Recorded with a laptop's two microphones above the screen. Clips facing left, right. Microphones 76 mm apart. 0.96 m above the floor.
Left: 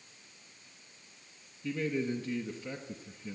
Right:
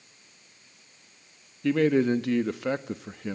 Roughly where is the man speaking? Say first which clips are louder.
Right 11 dB; right.